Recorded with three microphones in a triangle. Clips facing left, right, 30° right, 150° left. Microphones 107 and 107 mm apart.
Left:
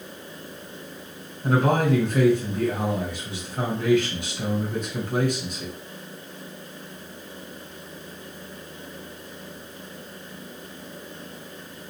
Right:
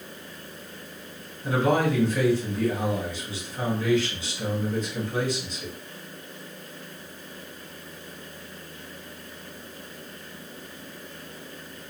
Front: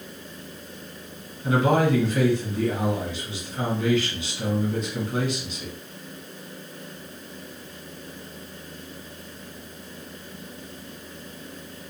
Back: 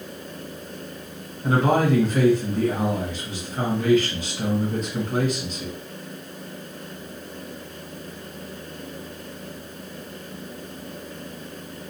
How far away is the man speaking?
About 2 m.